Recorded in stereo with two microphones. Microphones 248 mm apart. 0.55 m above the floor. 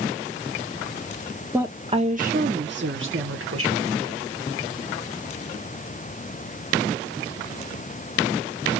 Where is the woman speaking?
10° right (ahead or behind), 0.8 m; by 3.9 s 65° right (ahead or behind), 1.8 m.